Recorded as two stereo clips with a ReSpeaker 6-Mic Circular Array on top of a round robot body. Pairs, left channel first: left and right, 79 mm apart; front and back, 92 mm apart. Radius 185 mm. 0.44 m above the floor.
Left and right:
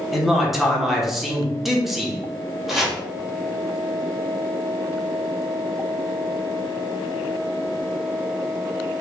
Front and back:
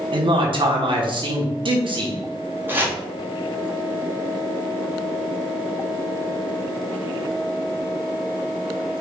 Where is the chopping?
170° right, 1.4 m.